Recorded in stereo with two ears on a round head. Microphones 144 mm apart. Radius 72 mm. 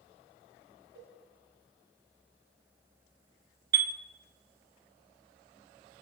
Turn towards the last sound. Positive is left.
turn(degrees=-70)  # may be behind; listen again after turning